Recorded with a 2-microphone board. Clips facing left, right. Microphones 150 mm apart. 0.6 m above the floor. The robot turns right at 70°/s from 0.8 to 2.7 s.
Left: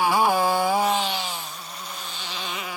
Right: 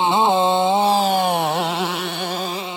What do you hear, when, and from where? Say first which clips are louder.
0.0 s a motorcycle: right 4 dB; 155° right; by 2.8 s 25° right